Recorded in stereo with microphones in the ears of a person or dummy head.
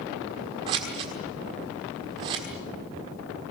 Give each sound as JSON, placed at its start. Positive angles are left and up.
{"t": 0.7, "sound": "scissors", "side_deg": -25, "distance_m": 1.5}